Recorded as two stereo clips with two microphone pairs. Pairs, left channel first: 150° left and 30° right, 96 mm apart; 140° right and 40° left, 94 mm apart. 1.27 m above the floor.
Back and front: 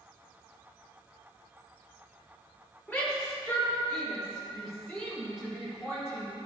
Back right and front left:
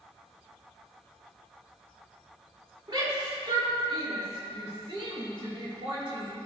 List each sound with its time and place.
2.9 s a shout: 70° left, 3.5 m; by 6.3 s 60° left, 8.5 m